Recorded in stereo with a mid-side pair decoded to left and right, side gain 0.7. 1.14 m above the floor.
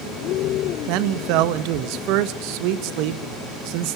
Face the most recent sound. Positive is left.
turn(degrees=-65)